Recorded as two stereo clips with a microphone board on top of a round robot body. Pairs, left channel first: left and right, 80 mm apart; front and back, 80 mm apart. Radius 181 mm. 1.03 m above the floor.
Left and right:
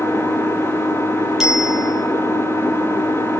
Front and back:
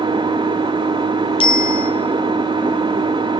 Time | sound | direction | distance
0.0 | an engine running | 150° left | 1.8 m
1.4 | a bicycle bell | 5° right | 5 m